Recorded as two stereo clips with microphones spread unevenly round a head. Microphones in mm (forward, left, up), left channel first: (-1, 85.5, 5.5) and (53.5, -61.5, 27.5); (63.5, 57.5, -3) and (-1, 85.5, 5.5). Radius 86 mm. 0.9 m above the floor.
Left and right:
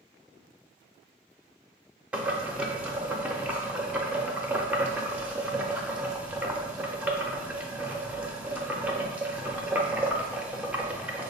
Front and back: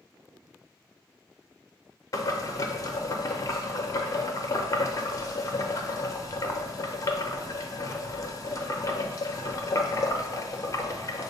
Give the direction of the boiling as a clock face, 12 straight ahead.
12 o'clock.